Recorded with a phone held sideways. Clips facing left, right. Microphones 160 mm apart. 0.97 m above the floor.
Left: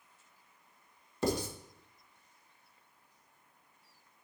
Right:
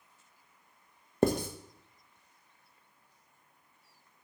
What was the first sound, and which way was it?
Writing, 55° right (ahead or behind).